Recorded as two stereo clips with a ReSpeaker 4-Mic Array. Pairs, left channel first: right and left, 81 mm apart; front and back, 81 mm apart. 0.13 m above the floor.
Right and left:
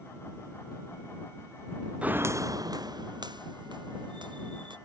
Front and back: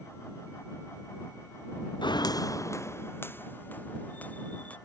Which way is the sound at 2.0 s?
15° left.